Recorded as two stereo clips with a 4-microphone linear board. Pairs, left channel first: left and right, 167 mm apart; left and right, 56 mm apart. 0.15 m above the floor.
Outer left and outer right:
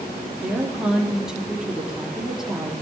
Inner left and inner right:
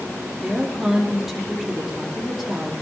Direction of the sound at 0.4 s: 5° right (ahead or behind).